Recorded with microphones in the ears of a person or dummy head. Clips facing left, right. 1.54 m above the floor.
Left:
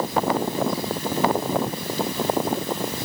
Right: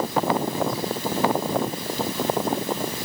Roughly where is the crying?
No crying in this recording.